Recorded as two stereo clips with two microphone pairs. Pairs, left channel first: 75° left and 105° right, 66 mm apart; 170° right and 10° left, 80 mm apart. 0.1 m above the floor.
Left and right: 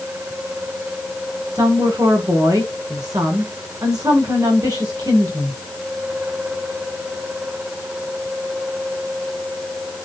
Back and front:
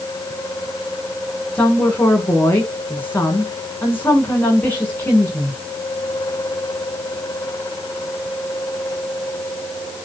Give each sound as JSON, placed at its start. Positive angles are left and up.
{"t": 1.6, "sound": "a woman speaking", "azimuth_deg": -105, "distance_m": 6.5}